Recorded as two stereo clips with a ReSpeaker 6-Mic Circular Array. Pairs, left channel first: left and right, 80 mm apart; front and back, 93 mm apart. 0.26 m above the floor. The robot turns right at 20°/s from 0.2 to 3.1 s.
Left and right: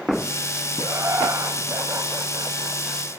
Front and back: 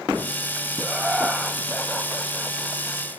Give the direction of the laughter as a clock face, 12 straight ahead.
4 o'clock.